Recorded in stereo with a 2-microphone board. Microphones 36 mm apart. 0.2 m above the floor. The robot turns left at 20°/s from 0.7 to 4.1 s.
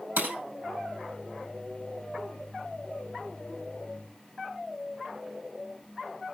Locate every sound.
0.2 s breaking glass: 65° right (ahead or behind), 4 m